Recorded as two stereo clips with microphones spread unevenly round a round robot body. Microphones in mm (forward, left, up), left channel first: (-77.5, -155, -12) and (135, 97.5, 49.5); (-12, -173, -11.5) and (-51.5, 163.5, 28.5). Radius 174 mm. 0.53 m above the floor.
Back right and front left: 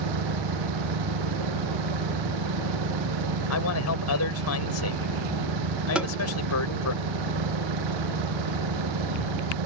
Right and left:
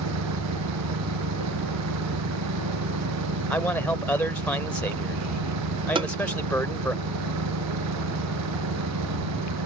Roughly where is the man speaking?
Behind.